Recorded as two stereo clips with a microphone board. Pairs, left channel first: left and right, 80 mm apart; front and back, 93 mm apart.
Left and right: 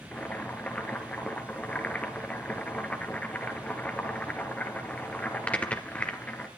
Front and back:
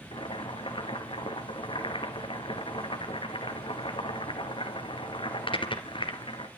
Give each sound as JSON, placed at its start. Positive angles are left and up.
{"t": 0.1, "sound": "boiling", "azimuth_deg": 20, "distance_m": 3.0}